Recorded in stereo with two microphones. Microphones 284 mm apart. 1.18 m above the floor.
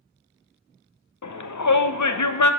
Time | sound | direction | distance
1.2 | a shout | 75° left (ahead or behind) | 0.5 m